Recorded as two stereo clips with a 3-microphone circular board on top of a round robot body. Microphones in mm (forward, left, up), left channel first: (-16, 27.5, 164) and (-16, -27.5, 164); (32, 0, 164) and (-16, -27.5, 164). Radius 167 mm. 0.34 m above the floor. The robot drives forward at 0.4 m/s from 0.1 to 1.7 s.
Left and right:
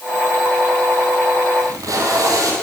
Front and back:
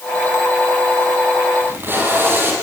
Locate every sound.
1.6 s tape being pulled: 100° right, 6 m